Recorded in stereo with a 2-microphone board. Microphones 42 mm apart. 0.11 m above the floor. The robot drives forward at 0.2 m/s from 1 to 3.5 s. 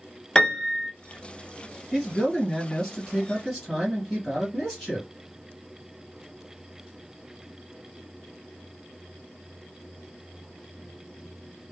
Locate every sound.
0.3 s a piano: 15° left (ahead or behind), 1.0 m
1.9 s a man speaking: 5° left (ahead or behind), 1.7 m